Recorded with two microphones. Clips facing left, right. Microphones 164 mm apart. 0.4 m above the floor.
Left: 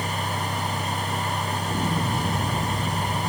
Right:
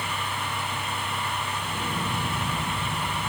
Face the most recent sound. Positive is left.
turn(degrees=55)  # may be behind; listen again after turning